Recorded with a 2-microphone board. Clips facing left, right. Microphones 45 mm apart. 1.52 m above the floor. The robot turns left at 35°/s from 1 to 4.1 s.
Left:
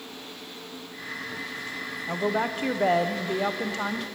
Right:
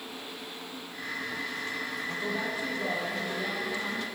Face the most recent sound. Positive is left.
turn(degrees=55)